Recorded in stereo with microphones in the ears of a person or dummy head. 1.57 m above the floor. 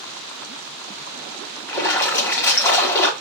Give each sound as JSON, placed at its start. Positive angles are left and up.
{"t": 1.7, "sound": "a splash", "side_deg": 15, "distance_m": 1.2}